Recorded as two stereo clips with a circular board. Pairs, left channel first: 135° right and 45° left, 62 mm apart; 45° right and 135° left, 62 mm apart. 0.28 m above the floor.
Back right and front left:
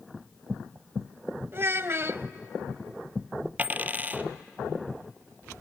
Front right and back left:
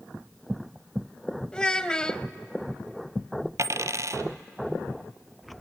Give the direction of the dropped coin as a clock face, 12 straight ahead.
8 o'clock.